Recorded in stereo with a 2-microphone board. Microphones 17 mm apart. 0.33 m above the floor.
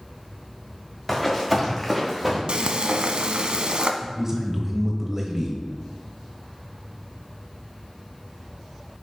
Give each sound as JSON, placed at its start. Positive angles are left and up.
{"t": 1.1, "sound": "running footsteps", "side_deg": -5, "distance_m": 2.5}
{"t": 2.5, "sound": "frying", "side_deg": -90, "distance_m": 0.6}
{"t": 4.0, "sound": "a man speaking", "side_deg": -20, "distance_m": 1.2}